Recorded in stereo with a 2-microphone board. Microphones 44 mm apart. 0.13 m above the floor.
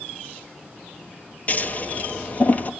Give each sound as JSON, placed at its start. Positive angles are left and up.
{"t": 1.5, "sound": "scissors", "side_deg": 35, "distance_m": 1.4}